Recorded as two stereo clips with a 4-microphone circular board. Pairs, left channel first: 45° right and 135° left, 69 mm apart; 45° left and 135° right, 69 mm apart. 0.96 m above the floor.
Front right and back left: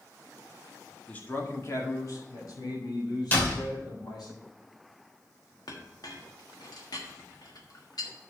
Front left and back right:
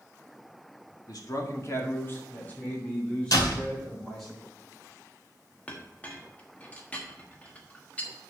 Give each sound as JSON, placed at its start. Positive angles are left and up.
{"t": 1.1, "sound": "a man speaking", "azimuth_deg": 25, "distance_m": 1.6}
{"t": 3.3, "sound": "a door slam", "azimuth_deg": 20, "distance_m": 2.5}
{"t": 5.7, "sound": "a clink", "azimuth_deg": -25, "distance_m": 1.3}